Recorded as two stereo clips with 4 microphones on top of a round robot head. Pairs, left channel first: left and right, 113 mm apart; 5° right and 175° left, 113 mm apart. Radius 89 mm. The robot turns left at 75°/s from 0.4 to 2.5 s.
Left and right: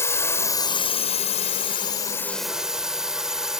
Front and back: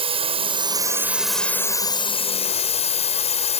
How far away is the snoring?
I don't hear snoring.